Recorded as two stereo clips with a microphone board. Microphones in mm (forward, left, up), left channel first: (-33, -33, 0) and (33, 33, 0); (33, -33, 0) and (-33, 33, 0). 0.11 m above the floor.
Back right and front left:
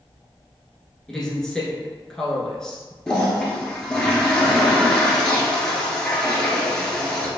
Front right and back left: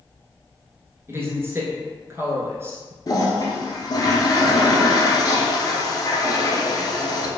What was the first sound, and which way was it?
A woman speaking, 150° left.